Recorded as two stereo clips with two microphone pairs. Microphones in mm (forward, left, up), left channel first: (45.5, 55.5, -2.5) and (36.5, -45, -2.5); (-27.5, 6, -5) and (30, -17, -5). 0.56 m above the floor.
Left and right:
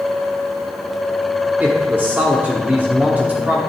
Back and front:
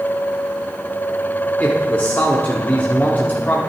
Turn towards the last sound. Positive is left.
turn(degrees=-160)